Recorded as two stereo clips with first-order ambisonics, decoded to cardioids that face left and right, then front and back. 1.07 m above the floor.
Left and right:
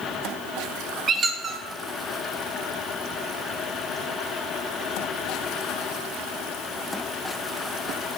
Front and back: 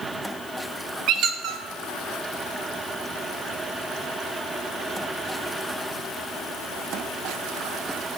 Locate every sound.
1.1 s a squeak: 150° right, 0.6 m